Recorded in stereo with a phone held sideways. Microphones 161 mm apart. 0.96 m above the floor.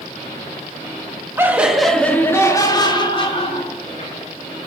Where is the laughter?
15° right (ahead or behind), 1.5 m; by 4.2 s 45° left (ahead or behind), 3 m.